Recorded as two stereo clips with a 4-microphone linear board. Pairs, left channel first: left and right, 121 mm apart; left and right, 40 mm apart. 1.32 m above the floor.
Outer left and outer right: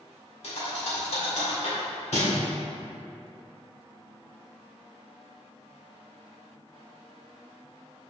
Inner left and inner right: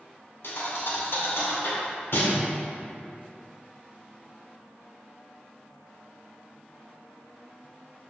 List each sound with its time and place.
0.4 s a thud: 70° left (ahead or behind), 2 m